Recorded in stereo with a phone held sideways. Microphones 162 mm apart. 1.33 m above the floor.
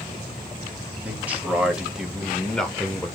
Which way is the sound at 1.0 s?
10° right (ahead or behind).